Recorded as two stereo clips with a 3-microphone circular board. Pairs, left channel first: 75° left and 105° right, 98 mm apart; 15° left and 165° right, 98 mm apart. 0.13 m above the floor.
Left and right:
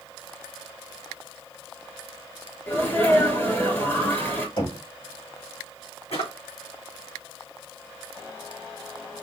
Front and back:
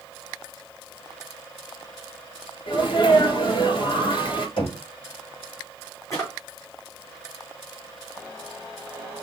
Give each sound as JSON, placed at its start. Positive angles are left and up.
{"t": 2.7, "sound": "a sneeze", "azimuth_deg": 15, "distance_m": 2.5}
{"t": 4.6, "sound": "knocking", "azimuth_deg": 45, "distance_m": 4.5}
{"t": 6.1, "sound": "a drawer", "azimuth_deg": 70, "distance_m": 3.0}